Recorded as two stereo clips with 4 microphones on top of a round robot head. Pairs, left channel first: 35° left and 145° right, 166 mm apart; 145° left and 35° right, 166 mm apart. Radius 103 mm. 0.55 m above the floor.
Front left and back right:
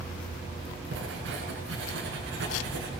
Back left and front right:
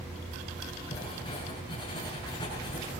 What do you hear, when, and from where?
0.9 s writing: 150° right, 7 m